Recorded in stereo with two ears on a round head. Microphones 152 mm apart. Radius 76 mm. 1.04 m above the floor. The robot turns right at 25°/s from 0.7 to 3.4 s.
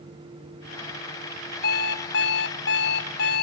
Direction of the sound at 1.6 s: 65° left.